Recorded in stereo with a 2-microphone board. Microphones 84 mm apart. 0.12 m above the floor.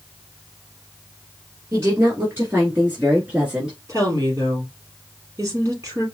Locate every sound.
1.7 s a woman speaking: 35° right (ahead or behind), 1.8 m; by 3.8 s 10° right (ahead or behind), 1.9 m
3.9 s a woman speaking: 35° right (ahead or behind), 3.5 m